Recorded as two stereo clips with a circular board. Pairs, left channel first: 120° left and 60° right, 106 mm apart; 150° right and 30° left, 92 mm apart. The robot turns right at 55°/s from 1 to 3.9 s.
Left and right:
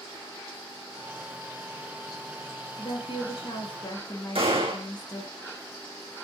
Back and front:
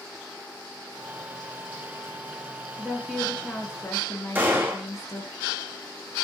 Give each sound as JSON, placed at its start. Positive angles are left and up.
{"t": 2.8, "sound": "a woman speaking", "azimuth_deg": 100, "distance_m": 3.0}
{"t": 4.3, "sound": "a gunshot", "azimuth_deg": -35, "distance_m": 2.5}